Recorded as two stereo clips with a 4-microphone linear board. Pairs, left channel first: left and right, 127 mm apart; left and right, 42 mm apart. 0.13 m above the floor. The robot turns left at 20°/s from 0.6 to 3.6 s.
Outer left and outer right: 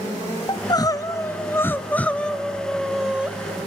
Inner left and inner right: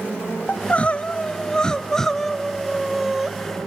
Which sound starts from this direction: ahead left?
Crying, at 0.5 s.